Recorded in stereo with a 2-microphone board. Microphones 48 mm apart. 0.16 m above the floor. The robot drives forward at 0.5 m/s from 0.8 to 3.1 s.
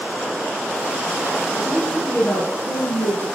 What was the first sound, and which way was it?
A woman speaking, 60° left (ahead or behind).